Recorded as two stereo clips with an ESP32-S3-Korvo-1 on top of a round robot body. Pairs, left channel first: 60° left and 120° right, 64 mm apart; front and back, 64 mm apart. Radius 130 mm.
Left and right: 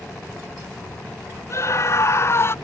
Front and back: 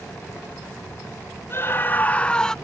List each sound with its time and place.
1.5 s a scream: 40° left; by 2.5 s 75° left